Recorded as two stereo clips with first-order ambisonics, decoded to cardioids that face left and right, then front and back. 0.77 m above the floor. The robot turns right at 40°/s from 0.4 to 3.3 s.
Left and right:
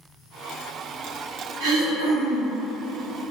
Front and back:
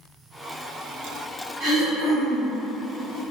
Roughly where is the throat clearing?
Behind right.